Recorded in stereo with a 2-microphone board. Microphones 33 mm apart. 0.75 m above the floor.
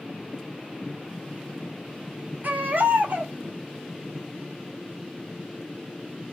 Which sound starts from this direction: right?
A baby crying, at 2.4 s.